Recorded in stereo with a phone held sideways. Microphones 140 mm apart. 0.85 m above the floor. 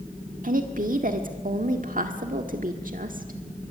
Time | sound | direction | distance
0.4 | a woman speaking | 75° right (ahead or behind) | 1.7 m